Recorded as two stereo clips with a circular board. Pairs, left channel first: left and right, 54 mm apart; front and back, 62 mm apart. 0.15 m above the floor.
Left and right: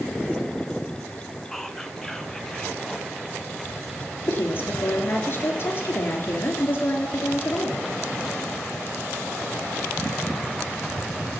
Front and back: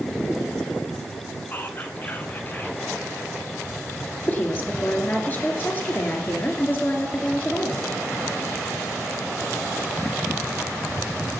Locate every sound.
1.5 s whispering: 15° left, 1.3 m
4.3 s a woman speaking: 55° left, 2.5 m